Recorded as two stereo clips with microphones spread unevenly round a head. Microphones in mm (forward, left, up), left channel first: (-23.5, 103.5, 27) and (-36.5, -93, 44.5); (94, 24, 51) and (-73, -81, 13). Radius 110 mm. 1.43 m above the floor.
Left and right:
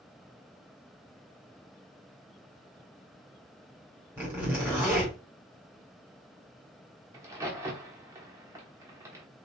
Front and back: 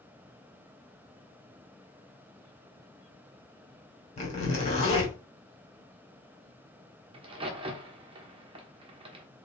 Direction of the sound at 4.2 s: 15° right.